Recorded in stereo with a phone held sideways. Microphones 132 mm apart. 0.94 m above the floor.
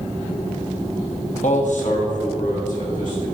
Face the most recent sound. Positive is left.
turn(degrees=75)  # may be behind; listen again after turning